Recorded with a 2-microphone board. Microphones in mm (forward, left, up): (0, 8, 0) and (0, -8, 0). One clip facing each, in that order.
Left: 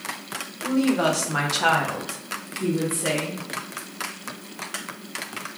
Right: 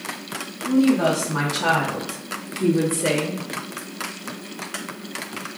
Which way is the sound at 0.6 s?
75° left (ahead or behind).